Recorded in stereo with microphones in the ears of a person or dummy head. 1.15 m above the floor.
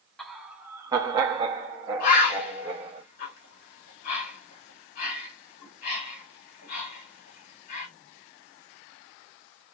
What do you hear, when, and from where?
0.2 s laughter: centre (ahead or behind), 0.8 m; by 3.0 s 30° right (ahead or behind), 1.4 m
2.0 s a bird: 65° left (ahead or behind), 3 m